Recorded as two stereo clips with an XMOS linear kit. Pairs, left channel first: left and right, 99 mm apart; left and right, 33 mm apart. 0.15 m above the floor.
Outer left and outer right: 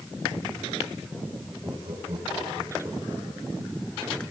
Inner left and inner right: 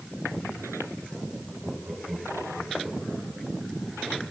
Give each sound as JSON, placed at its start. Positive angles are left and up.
{"t": 1.6, "sound": "laughter", "side_deg": -65, "distance_m": 9.0}